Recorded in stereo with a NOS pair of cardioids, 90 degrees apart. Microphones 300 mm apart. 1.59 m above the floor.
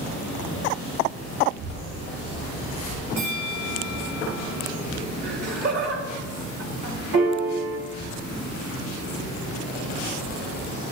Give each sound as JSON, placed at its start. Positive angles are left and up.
{"t": 1.4, "sound": "a child speaking", "azimuth_deg": -50, "distance_m": 3.5}
{"t": 3.2, "sound": "a bell", "azimuth_deg": -65, "distance_m": 2.0}
{"t": 5.2, "sound": "laughter", "azimuth_deg": -50, "distance_m": 3.5}
{"t": 7.1, "sound": "a piano", "azimuth_deg": -55, "distance_m": 4.0}